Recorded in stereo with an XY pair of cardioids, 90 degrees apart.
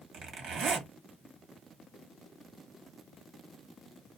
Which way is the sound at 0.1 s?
65° right.